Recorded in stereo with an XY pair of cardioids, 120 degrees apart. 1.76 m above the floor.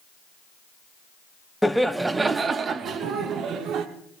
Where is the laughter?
Straight ahead, 0.8 m; by 3.9 s 70° right, 1.4 m.